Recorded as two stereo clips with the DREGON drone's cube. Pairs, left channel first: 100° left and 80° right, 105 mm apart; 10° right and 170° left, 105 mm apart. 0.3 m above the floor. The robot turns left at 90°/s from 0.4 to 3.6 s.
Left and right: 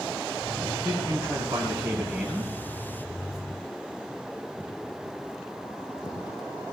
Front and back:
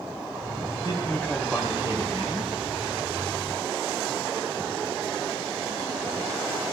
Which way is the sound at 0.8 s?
45° right.